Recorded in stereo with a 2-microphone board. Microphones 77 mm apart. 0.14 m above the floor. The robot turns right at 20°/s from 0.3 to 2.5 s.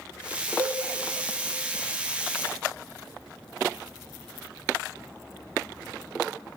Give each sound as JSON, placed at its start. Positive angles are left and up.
{"t": 0.6, "sound": "a cowbell", "side_deg": -70, "distance_m": 1.3}